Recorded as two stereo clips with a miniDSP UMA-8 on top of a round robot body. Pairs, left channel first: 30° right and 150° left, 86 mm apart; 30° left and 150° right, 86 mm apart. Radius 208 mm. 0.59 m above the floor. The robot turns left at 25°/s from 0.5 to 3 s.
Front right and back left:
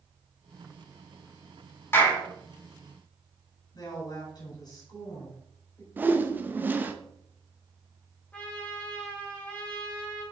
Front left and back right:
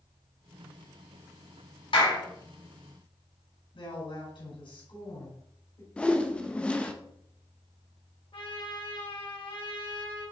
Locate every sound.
1.9 s a clap: 35° left, 4.5 m; by 2.2 s 25° left, 4.5 m
3.7 s a woman speaking: 10° left, 4.5 m
6.0 s a whoosh: 100° left, 1.2 m
8.3 s a trumpet: 45° left, 3.5 m